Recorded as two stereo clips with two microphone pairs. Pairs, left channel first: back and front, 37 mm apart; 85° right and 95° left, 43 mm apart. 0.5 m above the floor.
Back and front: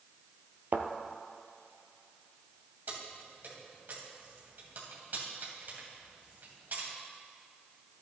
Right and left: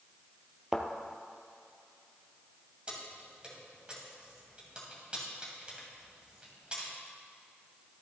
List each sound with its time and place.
0.7 s a thud: 15° left, 0.9 m
2.9 s keys jangling: 25° left, 2.5 m